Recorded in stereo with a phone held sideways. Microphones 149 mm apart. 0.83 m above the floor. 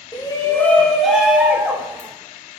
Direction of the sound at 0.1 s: 30° left (ahead or behind).